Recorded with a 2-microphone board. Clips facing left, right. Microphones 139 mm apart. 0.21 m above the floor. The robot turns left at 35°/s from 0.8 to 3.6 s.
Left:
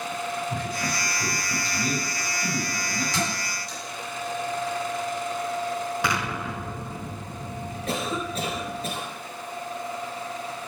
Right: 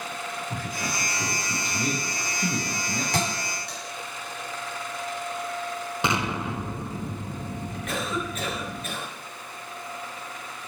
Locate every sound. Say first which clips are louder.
0.5 s a man speaking: left 3 dB; 10° right, 3.5 m; by 3.0 s 85° right, 3.5 m
3.1 s a thud: right 1 dB; 60° right (ahead or behind), 5.5 m; by 3.8 s 75° right (ahead or behind), 5.5 m
6.0 s an explosion: right 1 dB; 25° right (ahead or behind), 0.7 m
7.9 s a cough: left 2 dB; 35° left (ahead or behind), 3.5 m